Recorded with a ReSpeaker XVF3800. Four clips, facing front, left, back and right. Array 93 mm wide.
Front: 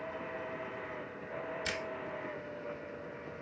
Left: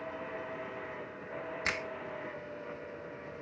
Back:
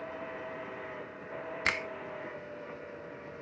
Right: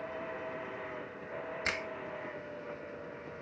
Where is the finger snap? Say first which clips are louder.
Left 1 dB, back 10 dB; 175° left, 0.9 m.